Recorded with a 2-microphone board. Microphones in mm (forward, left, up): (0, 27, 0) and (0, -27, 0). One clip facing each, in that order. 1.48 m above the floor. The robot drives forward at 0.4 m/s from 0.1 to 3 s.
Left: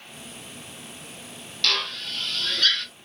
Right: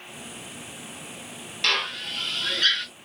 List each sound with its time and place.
1.6 s a drill: 25° right (ahead or behind), 0.8 m; by 2.9 s 15° right (ahead or behind), 1.2 m